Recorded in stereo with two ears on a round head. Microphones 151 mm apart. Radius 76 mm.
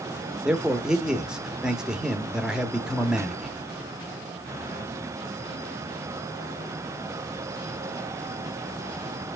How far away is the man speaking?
About 1.0 m.